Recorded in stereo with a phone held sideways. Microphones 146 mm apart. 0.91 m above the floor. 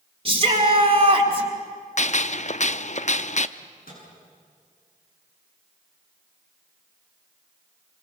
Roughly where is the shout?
Right.